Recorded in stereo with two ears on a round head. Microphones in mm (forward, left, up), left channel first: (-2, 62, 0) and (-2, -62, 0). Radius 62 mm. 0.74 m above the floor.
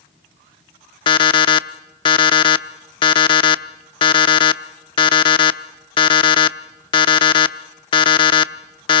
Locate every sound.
1.1 s an alarm clock: 35° left (ahead or behind), 0.7 m